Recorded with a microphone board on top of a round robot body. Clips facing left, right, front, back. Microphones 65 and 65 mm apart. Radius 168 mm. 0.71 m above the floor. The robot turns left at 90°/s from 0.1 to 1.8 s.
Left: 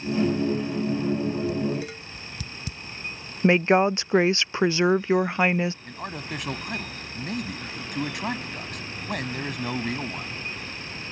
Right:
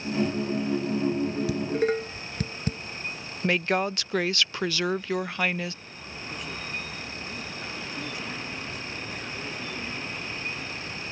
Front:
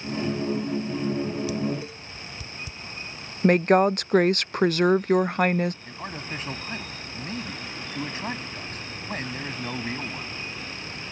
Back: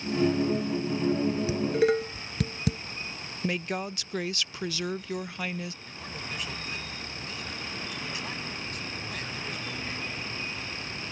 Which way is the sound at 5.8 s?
60° left.